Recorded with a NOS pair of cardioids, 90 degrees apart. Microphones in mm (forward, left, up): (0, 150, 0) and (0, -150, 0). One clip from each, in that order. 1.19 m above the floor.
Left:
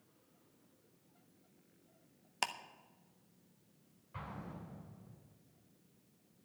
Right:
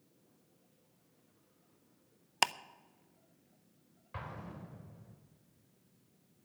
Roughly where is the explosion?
Ahead right.